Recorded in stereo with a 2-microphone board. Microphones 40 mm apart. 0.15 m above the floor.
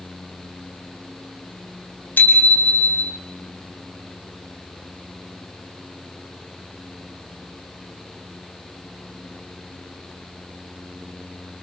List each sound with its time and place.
2.2 s a bicycle bell: 45° left (ahead or behind), 4 m; by 3.2 s 55° left (ahead or behind), 3.5 m